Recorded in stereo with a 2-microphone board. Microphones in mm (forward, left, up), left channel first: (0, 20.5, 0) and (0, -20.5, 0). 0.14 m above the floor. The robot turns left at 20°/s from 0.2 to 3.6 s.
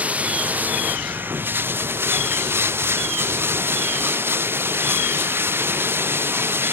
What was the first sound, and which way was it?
Running water, 40° right.